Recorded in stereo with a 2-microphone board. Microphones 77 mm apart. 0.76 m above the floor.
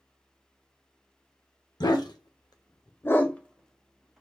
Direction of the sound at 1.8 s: 60° left (ahead or behind).